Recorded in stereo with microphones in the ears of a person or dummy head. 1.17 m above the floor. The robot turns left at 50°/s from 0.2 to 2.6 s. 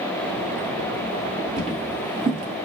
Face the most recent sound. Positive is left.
turn(degrees=-35)  # may be behind; listen again after turning